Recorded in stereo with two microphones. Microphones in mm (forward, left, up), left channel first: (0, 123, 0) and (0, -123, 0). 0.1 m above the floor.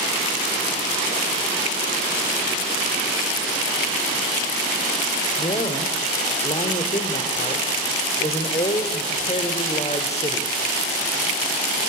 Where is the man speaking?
25° left (ahead or behind), 3 m.